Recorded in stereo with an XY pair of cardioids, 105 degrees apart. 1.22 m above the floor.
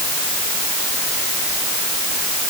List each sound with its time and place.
Only background noise.